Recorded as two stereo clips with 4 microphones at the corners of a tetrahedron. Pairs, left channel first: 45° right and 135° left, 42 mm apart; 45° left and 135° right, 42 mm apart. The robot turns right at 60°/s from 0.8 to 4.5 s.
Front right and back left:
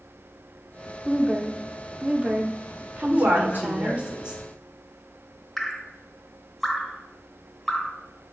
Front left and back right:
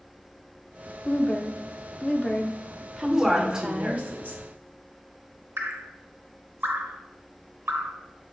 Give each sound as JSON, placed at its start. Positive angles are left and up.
{"t": 1.1, "sound": "a woman speaking", "azimuth_deg": 25, "distance_m": 0.8}
{"t": 3.0, "sound": "a woman speaking", "azimuth_deg": 125, "distance_m": 1.1}
{"t": 5.6, "sound": "dripping", "azimuth_deg": -130, "distance_m": 0.7}